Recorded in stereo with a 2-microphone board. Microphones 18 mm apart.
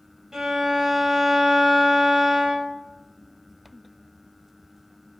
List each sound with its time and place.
0.3 s a violin: 35° right (ahead or behind), 0.6 m